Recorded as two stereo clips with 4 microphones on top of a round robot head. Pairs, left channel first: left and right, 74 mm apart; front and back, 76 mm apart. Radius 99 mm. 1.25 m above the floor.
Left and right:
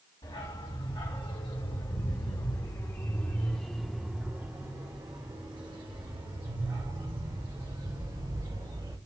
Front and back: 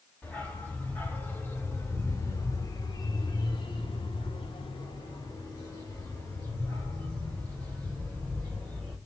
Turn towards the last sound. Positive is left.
turn(degrees=-75)